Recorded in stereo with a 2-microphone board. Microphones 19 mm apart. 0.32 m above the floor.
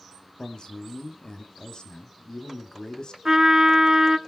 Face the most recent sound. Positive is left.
turn(degrees=-30)  # may be behind; listen again after turning